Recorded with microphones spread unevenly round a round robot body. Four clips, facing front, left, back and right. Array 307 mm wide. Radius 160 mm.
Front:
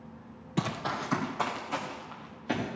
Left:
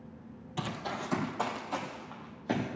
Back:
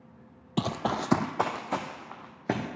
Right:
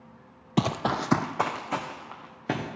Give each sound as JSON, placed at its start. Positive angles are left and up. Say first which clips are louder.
{"t": 0.6, "sound": "running footsteps", "louder": "right 10 dB, back 3 dB", "azimuth_deg": -95, "distance_m": 0.7}